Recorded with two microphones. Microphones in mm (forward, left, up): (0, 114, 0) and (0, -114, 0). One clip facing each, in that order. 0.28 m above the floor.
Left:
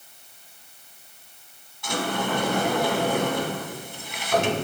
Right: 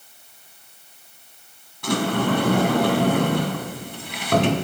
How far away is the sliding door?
About 1.5 m.